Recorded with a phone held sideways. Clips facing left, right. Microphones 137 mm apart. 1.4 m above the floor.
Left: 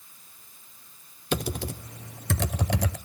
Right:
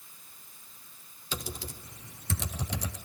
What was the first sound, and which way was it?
Typing on a keyboard, 70° left (ahead or behind).